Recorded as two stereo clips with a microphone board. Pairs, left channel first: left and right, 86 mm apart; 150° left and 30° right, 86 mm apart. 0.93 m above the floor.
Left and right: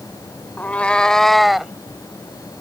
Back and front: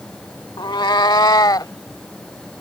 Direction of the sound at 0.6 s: 155° left.